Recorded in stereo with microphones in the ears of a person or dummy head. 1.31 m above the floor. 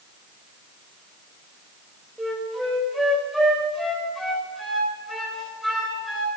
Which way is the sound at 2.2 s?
Centre (ahead or behind).